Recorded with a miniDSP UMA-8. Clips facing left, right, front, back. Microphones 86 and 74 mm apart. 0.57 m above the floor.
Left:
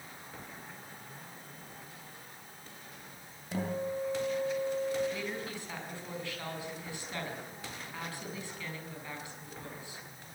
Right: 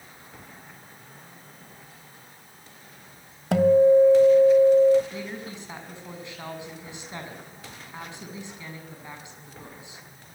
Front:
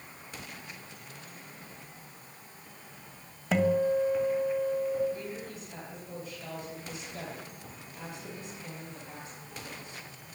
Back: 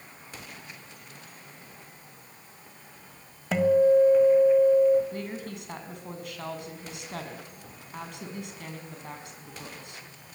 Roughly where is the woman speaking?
Behind.